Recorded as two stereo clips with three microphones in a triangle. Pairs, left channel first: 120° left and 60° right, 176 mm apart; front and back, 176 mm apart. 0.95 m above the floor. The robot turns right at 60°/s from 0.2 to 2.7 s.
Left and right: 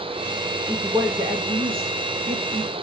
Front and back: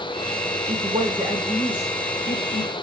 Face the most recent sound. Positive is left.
turn(degrees=-20)